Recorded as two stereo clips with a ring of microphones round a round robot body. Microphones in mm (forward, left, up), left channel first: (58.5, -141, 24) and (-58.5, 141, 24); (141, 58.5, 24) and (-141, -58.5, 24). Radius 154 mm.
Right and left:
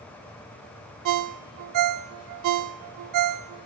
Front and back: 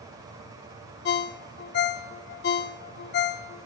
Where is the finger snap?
No finger snap in this recording.